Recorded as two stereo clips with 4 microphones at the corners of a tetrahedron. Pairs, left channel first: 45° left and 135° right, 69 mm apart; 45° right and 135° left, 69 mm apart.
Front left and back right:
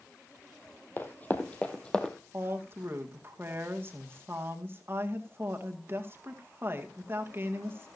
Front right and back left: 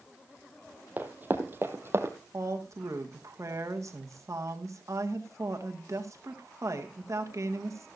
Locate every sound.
1.0 s running footsteps: 85° left, 1.9 m; by 2.1 s 115° left, 1.9 m
2.3 s a woman speaking: 175° left, 2.0 m